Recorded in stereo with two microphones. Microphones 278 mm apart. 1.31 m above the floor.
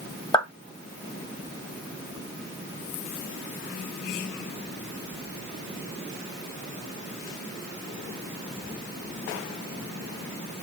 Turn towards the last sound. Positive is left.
turn(degrees=20)  # may be behind; listen again after turning